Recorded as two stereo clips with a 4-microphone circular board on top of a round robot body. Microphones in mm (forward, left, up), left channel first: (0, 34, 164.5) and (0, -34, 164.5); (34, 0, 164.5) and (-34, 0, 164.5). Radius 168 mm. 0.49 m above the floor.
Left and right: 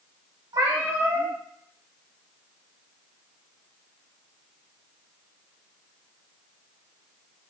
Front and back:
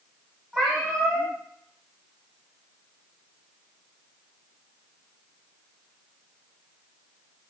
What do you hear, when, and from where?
0.5 s a cat meowing: 80° right, 2.0 m